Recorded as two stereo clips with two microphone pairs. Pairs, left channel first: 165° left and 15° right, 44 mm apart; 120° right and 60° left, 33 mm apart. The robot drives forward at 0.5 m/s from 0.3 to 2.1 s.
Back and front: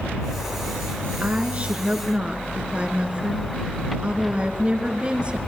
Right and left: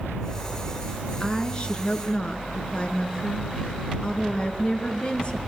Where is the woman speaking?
65° right, 3 m; by 5.4 s 75° right, 2.5 m.